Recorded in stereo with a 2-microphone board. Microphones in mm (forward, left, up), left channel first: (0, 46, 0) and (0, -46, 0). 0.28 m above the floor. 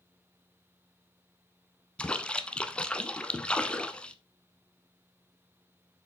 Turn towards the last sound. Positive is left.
turn(degrees=10)  # may be behind; listen again after turning